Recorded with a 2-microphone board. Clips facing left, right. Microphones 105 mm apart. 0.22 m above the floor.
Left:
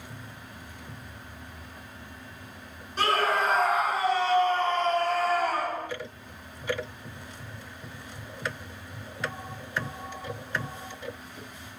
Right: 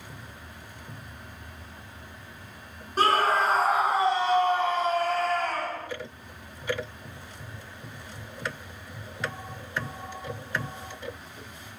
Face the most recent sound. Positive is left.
turn(degrees=20)  # may be behind; listen again after turning